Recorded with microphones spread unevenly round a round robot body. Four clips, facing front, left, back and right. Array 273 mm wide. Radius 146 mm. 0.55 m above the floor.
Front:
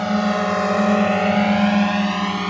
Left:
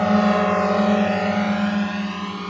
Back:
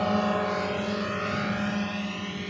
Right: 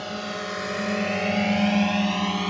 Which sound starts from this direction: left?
A drone, at 0.0 s.